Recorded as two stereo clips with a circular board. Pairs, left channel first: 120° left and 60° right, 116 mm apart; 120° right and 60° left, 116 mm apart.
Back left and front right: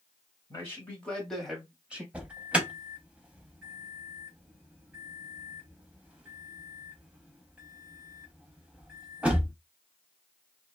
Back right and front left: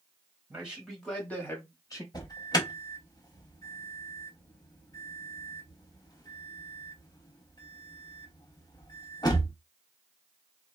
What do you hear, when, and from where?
0.5 s a man speaking: 115° left, 1.2 m; by 2.0 s 130° right, 1.3 m
2.1 s an alarm: 130° right, 0.7 m